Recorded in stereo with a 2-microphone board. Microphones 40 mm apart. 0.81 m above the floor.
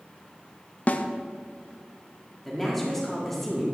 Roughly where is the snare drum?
Left.